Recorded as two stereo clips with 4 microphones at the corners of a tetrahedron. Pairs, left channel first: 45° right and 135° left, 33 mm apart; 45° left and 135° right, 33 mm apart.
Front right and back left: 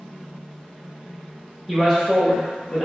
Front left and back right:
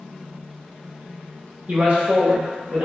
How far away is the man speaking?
About 1.0 m.